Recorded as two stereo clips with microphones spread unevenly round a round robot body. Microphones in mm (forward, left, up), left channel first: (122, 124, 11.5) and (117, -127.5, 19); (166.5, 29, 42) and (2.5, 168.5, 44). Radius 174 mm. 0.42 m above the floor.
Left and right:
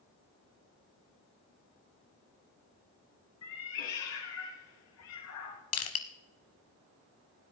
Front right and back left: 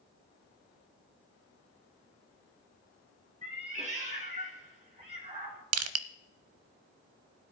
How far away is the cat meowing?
About 3 m.